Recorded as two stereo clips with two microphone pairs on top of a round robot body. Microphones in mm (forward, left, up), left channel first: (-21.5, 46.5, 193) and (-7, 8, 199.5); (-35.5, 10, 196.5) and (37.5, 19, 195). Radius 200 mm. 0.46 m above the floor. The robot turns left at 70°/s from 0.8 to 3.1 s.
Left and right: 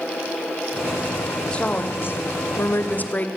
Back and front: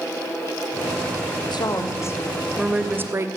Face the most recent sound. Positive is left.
turn(degrees=60)